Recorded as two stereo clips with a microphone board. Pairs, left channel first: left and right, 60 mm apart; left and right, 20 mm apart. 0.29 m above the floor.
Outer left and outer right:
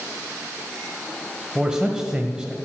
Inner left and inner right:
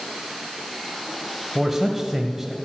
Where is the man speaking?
10° right (ahead or behind), 1.2 m.